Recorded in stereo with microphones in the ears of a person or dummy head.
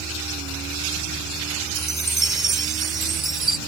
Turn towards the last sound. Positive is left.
turn(degrees=0)  # may be behind; listen again after turning